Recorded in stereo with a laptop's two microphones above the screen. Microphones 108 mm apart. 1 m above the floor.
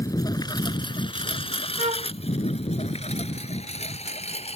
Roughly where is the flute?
Right.